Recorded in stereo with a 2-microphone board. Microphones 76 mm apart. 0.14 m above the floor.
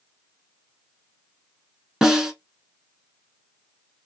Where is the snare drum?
10° right (ahead or behind), 1.1 m.